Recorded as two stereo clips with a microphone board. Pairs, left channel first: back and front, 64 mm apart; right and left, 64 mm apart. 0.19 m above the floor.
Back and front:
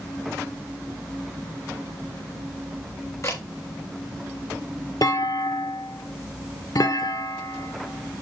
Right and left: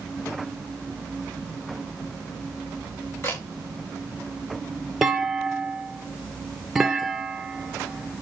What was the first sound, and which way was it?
A camera shutter, 140° right.